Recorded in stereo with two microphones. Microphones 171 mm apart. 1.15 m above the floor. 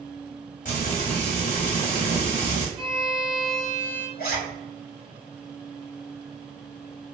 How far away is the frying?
About 1.4 m.